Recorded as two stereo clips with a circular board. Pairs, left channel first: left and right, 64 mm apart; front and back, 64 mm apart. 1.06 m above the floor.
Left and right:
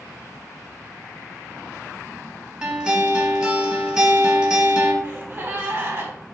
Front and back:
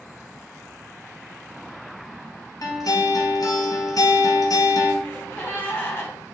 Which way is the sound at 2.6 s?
15° right.